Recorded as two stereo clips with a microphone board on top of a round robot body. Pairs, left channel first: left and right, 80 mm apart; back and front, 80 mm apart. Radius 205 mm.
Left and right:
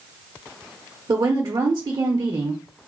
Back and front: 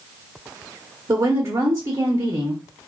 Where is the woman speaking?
60° right, 1.1 m.